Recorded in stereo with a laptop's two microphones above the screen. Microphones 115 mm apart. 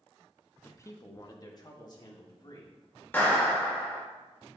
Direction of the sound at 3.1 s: 20° left (ahead or behind).